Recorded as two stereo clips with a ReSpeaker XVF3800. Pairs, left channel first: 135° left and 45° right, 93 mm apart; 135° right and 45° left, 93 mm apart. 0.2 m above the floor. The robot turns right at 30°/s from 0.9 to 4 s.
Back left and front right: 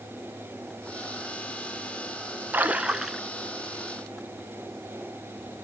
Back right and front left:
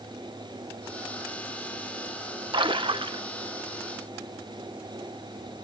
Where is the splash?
25° left, 0.6 m; by 3.2 s 45° left, 0.6 m.